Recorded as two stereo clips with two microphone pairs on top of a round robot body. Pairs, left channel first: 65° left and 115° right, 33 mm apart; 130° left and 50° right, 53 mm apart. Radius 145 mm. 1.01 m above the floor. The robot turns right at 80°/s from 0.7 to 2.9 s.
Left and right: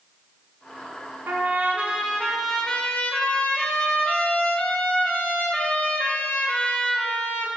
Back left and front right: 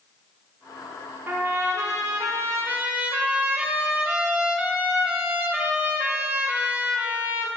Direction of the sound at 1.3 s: 110° right.